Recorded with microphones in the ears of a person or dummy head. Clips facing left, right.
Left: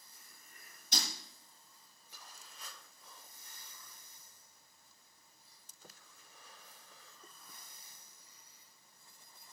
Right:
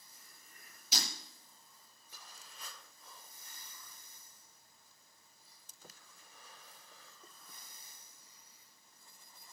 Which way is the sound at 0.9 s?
10° right (ahead or behind).